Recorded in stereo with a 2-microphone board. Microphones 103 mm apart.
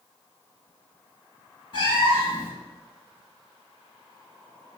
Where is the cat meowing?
45° left (ahead or behind), 1.6 m.